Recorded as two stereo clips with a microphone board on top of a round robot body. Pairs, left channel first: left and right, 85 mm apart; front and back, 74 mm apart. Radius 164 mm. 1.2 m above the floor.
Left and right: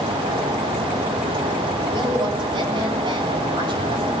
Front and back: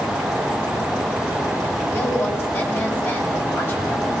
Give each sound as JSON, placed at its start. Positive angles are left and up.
{"t": 1.9, "sound": "a woman speaking", "azimuth_deg": -55, "distance_m": 8.0}